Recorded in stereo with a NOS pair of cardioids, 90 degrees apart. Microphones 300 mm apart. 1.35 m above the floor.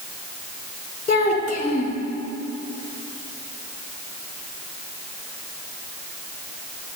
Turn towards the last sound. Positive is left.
turn(degrees=30)